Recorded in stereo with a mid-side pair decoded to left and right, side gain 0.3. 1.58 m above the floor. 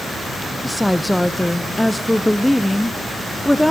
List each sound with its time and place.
0.6 s a woman speaking: 10° left, 1.2 m